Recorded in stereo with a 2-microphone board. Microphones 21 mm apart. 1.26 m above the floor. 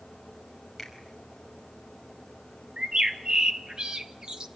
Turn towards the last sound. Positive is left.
turn(degrees=-35)  # may be behind; listen again after turning